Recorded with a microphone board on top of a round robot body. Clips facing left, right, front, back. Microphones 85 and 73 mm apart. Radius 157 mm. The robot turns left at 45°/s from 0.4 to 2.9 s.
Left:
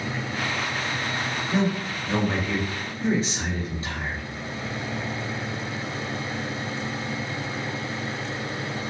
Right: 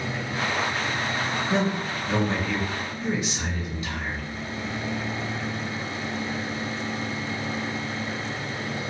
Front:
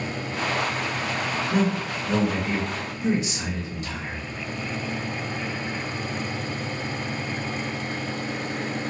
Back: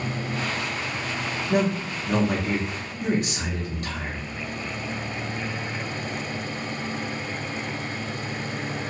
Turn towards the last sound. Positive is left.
turn(degrees=145)